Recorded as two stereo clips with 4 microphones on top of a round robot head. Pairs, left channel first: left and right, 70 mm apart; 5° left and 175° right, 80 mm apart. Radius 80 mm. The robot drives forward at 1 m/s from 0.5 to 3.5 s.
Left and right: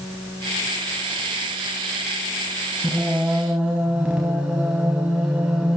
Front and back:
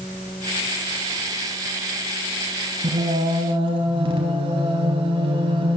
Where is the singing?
170° right, 3 m.